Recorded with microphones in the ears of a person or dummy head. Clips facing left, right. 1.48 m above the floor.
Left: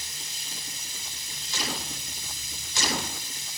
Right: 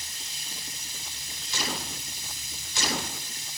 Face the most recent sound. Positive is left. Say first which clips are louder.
# left 1 dB
turn(degrees=70)  # may be behind; listen again after turning